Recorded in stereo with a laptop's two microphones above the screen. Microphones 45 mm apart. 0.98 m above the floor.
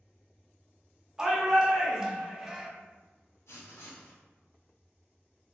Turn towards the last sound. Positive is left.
turn(degrees=85)